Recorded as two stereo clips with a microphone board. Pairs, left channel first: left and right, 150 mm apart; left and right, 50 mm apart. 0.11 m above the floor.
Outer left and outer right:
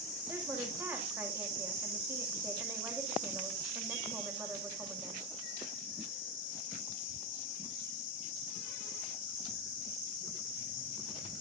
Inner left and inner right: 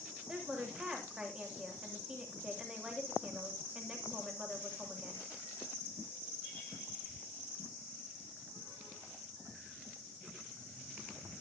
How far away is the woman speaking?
About 8.5 m.